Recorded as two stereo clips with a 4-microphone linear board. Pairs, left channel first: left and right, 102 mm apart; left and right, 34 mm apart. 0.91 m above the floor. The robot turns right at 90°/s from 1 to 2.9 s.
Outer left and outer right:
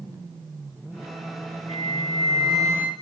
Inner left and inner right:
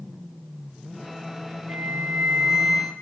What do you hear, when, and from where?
1.7 s a flute: 85° right, 2.5 m; by 2.9 s 25° left, 2.5 m